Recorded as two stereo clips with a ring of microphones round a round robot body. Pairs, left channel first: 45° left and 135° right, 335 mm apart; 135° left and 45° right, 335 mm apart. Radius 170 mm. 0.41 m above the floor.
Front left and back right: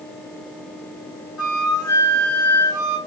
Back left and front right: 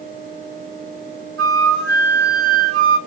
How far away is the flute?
About 2.5 m.